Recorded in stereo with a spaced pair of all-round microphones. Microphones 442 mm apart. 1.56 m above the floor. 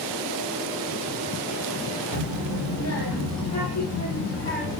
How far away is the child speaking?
About 1.4 m.